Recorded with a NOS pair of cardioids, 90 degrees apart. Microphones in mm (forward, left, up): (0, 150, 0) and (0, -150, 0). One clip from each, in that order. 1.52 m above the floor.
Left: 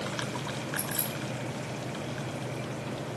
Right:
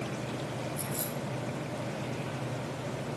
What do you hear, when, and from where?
0.8 s keys jangling: 55° left, 6.5 m